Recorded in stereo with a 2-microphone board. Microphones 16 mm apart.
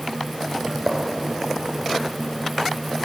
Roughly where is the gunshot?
Right.